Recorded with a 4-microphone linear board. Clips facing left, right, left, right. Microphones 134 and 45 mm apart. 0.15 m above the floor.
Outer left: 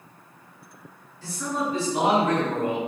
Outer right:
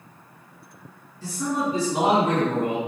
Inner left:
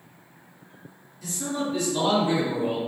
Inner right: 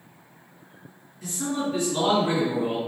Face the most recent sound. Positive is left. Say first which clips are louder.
# outer right 3 dB, inner right 1 dB
turn(degrees=-25)  # may be behind; listen again after turning